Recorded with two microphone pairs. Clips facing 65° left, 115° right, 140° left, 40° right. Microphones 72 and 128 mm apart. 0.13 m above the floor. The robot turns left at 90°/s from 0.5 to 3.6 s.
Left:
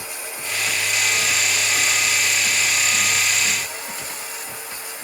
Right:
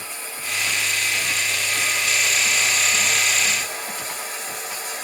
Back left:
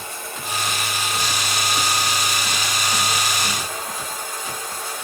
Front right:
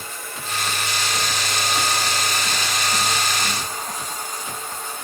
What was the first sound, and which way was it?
Running water, 140° left.